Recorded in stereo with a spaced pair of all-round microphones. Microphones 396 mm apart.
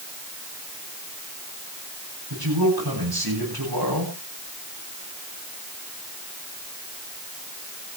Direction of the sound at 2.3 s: 70° right (ahead or behind).